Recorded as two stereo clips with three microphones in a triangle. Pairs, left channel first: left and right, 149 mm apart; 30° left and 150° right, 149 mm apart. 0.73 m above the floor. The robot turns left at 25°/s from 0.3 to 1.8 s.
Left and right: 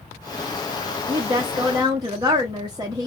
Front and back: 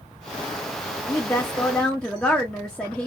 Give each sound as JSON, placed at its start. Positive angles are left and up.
{"t": 1.1, "sound": "a woman speaking", "azimuth_deg": -35, "distance_m": 0.7}